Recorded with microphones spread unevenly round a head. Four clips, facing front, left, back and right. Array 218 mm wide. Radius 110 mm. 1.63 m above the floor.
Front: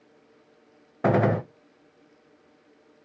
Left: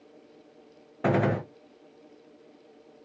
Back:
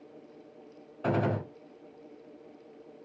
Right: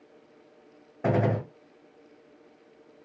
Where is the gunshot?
10° left, 0.6 m.